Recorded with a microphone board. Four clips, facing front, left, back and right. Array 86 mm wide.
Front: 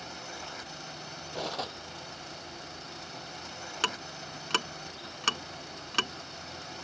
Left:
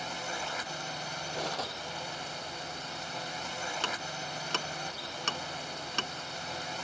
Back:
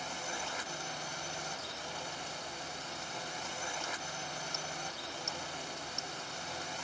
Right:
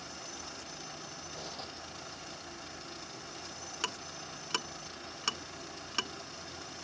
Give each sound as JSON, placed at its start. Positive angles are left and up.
{"t": 0.0, "sound": "a drone", "azimuth_deg": 105}
{"t": 1.3, "sound": "cutlery clinking", "azimuth_deg": 35}
{"t": 3.8, "sound": "ticking", "azimuth_deg": 5}